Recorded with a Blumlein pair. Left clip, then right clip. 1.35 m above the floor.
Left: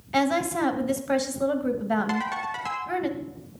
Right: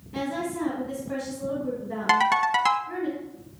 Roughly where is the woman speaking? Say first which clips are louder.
Left 6 dB; ahead left.